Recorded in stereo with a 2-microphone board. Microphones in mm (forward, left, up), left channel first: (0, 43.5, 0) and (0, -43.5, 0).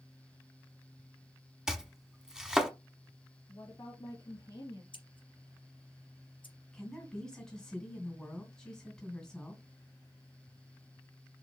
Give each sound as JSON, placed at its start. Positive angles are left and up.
{"t": 1.7, "sound": "chopping", "side_deg": -5, "distance_m": 0.9}
{"t": 3.5, "sound": "a woman speaking", "side_deg": 45, "distance_m": 2.5}
{"t": 4.9, "sound": "scissors", "side_deg": 70, "distance_m": 3.0}
{"t": 6.7, "sound": "a woman speaking", "side_deg": 15, "distance_m": 2.5}